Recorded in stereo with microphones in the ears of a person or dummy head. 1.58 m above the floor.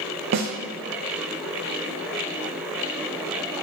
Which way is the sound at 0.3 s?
50° right (ahead or behind).